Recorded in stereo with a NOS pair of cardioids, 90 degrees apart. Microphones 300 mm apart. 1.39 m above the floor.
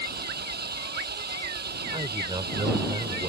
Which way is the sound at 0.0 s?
35° right.